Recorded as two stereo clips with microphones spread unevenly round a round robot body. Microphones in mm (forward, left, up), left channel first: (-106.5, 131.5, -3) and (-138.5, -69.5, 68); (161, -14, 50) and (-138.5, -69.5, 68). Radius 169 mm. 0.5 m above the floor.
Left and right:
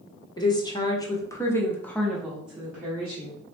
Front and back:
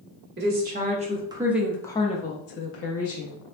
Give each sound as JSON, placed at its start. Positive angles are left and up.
{"t": 0.4, "sound": "a woman speaking", "azimuth_deg": 135, "distance_m": 1.3}